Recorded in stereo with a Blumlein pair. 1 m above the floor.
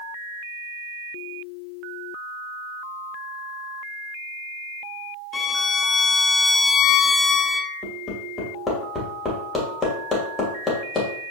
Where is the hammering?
15° left, 2.5 m.